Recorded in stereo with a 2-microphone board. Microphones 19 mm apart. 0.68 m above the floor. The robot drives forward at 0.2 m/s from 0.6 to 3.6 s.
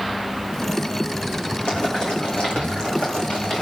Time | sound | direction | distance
1.7 | boiling | 70° left (ahead or behind) | 10 m